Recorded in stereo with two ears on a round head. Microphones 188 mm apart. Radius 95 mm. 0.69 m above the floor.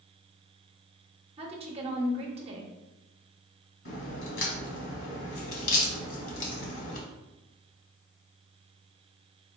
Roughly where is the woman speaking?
Right.